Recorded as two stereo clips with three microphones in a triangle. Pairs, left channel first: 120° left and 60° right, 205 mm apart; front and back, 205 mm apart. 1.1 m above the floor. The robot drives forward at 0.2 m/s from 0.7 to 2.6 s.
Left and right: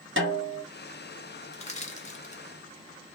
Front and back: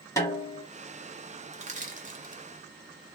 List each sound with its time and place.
0.2 s a snare drum: 75° right, 1.6 m
1.5 s crushing: 155° left, 1.0 m; by 2.4 s 160° left, 1.1 m